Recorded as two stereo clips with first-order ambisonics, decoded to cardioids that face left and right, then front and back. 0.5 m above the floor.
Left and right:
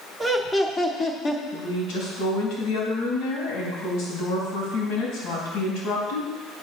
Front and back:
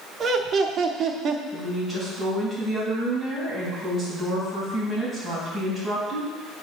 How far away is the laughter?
About 0.9 m.